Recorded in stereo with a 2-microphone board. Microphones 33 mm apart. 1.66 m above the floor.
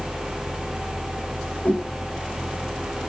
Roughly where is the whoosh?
Left.